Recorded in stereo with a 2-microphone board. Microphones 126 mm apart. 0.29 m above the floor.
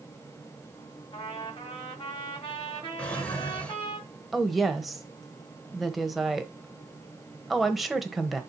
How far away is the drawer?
About 1.5 m.